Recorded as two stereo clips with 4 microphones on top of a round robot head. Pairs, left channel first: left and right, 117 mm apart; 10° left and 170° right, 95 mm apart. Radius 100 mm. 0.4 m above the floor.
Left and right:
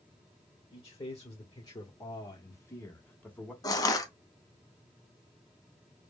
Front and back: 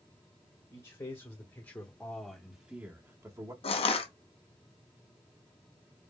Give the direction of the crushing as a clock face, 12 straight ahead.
11 o'clock.